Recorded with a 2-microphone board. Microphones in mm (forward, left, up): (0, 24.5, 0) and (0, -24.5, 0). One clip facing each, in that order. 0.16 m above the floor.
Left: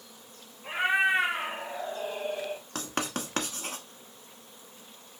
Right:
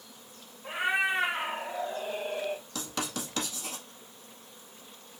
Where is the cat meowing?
30° left (ahead or behind), 1.8 m; by 2.6 s 25° right (ahead or behind), 1.2 m.